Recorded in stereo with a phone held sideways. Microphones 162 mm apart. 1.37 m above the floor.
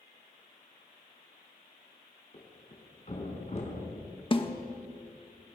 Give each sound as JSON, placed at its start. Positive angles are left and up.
{"t": 2.3, "sound": "a thud", "side_deg": 45, "distance_m": 5.0}
{"t": 4.3, "sound": "a snare drum", "side_deg": 35, "distance_m": 1.6}